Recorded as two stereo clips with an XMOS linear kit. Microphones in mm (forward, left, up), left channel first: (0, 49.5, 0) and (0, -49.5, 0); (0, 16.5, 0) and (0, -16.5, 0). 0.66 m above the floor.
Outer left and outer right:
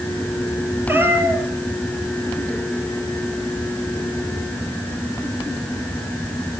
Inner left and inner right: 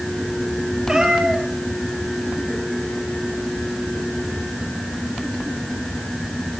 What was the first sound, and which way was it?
A cat meowing, 25° right (ahead or behind).